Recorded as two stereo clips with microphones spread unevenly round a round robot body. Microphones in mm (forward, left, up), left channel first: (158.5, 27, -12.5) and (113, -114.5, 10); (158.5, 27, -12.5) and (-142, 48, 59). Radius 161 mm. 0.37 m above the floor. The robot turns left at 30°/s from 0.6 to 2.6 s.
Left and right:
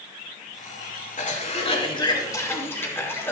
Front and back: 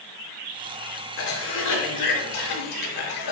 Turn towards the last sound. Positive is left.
turn(degrees=0)